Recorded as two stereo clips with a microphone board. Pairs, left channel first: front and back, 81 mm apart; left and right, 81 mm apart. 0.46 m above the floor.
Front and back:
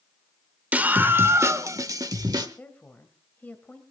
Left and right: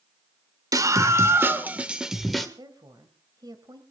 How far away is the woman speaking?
About 2.5 m.